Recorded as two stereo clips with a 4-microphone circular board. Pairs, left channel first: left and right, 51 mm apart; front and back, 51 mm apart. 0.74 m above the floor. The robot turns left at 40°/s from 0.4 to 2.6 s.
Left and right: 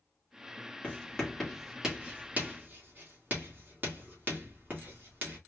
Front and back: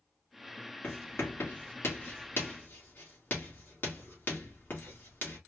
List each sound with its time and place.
0.8 s writing: 30° left, 2 m; by 5.4 s 40° right, 2 m